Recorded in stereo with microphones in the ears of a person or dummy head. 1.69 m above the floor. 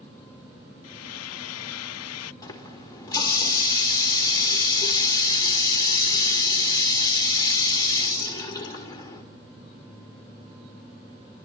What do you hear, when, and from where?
0.8 s frying: 80° left, 0.5 m
2.4 s a running tap: 25° left (ahead or behind), 3.5 m